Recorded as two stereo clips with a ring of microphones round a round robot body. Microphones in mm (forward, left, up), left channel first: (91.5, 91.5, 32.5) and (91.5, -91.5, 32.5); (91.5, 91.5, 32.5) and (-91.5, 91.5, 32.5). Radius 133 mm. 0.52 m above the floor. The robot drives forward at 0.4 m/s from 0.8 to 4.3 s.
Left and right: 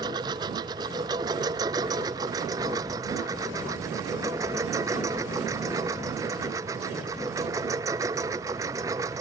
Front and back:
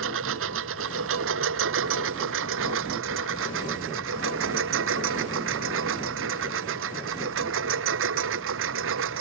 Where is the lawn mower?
165° right; by 9.2 s 170° right.